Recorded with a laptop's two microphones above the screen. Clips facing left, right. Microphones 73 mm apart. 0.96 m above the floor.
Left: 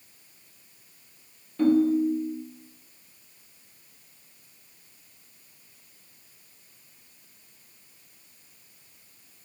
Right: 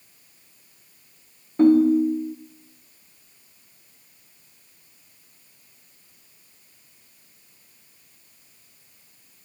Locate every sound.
1.6 s a ringtone: 35° right (ahead or behind), 0.6 m